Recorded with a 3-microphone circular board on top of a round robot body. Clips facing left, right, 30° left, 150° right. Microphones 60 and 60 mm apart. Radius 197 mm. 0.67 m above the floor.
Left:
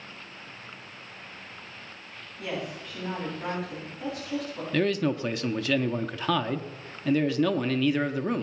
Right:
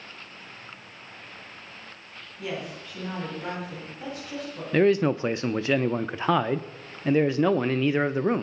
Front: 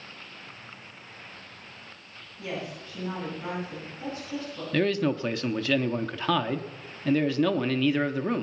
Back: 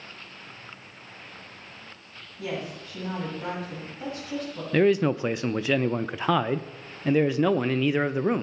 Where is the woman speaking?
175° right, 8 m.